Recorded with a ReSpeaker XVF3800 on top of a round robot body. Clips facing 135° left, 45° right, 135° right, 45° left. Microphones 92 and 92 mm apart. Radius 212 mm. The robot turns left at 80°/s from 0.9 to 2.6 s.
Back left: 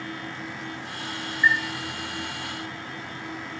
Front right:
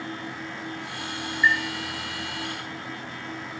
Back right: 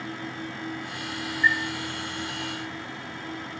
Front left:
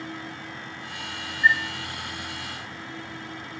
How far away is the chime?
About 3 m.